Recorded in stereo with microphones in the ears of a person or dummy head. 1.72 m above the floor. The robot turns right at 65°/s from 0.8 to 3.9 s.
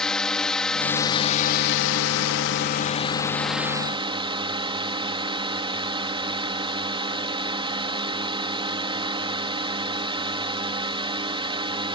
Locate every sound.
0.0 s a drone: 5° left; by 12.0 s 155° right